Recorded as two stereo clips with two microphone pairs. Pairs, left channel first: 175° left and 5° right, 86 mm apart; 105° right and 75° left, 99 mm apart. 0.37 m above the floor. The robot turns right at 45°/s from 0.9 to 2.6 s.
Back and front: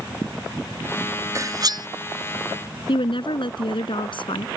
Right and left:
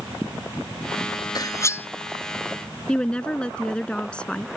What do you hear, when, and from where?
1.4 s cutlery clinking: 60° right; by 1.9 s 40° right
2.9 s a woman speaking: 175° left